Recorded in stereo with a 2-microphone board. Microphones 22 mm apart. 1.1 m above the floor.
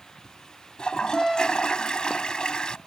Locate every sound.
0.8 s a toilet flushing: 35° left (ahead or behind)